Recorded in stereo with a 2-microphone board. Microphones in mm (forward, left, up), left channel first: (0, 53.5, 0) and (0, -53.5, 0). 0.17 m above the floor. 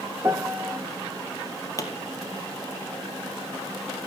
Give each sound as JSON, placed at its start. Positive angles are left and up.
{"t": 0.2, "sound": "a piano", "side_deg": -25, "distance_m": 0.6}
{"t": 1.8, "sound": "a pop", "side_deg": 30, "distance_m": 3.0}